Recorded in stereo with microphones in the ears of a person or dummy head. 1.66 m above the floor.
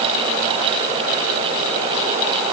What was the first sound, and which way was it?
Only background noise.